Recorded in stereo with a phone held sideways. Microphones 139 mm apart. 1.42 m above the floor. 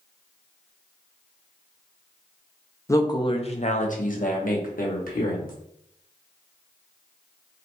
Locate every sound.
2.9 s a woman speaking: 20° left (ahead or behind), 0.7 m; by 5.5 s 70° left (ahead or behind), 1.4 m